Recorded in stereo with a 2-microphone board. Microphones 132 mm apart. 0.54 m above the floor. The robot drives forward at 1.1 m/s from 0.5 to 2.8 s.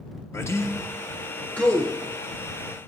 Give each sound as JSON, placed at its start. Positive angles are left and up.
{"t": 0.3, "sound": "a man speaking", "side_deg": 20, "distance_m": 0.6}